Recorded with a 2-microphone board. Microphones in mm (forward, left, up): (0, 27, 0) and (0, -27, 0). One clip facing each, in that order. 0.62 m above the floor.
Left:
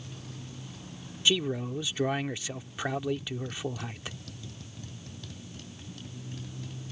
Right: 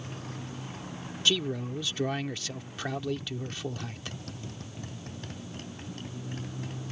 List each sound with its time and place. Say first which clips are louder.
0.0 s a motorcycle: right 5 dB; 45° right (ahead or behind)
1.2 s a man speaking: left 1 dB; 15° left (ahead or behind)